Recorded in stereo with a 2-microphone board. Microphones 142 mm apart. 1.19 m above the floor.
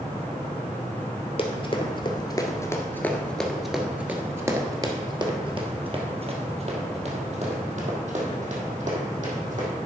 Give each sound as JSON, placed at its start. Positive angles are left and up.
{"t": 1.4, "sound": "running footsteps", "side_deg": 45, "distance_m": 1.5}